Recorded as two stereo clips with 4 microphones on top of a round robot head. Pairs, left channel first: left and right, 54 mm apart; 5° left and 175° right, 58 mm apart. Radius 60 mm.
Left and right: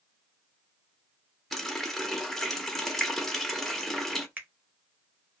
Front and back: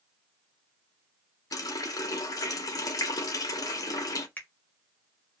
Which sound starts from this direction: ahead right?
A finger snap, at 4.4 s.